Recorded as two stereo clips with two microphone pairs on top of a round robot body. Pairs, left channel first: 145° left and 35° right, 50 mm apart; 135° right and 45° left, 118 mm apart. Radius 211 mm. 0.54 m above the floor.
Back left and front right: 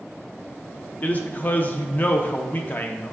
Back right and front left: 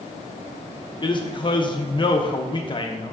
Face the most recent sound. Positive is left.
turn(degrees=-165)